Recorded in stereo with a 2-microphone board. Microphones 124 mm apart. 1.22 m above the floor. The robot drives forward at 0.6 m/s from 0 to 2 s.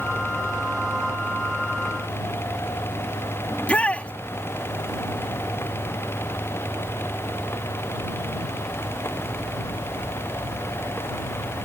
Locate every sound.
3.5 s a shout: 10° left (ahead or behind)